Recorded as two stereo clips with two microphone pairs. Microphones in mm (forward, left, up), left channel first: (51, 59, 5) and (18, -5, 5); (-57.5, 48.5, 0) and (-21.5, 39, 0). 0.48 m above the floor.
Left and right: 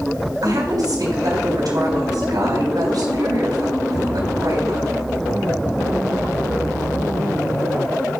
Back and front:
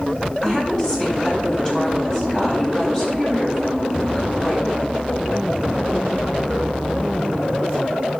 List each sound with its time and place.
0.4 s a woman speaking: 130° right, 3.5 m